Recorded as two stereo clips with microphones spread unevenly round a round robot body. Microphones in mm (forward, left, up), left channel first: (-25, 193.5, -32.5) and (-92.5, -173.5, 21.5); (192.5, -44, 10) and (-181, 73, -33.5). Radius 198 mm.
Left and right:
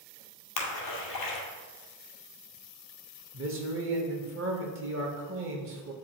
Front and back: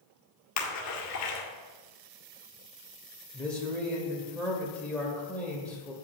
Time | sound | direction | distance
0.6 | a splash | 35° left | 1.8 m
3.3 | a man speaking | 115° right | 1.2 m